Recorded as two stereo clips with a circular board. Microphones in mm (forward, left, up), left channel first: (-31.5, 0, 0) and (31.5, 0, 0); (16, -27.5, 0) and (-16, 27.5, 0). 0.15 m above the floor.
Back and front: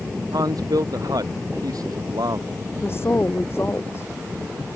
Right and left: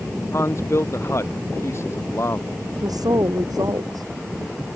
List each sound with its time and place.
0.3 s a man speaking: 15° right
2.8 s a woman speaking: 130° left